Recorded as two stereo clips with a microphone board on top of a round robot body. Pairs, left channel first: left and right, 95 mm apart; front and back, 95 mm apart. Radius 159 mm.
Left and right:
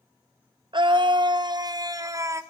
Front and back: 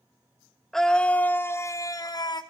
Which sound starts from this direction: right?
A scream, at 0.7 s.